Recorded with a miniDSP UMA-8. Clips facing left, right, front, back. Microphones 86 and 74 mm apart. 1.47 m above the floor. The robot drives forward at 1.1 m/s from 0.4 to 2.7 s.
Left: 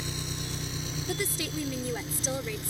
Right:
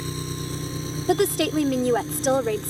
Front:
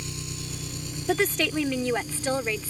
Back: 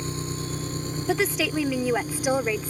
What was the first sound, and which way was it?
An engine running, 135° right.